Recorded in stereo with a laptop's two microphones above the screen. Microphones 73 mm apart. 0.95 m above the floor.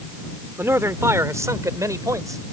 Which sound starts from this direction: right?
A man speaking, at 0.6 s.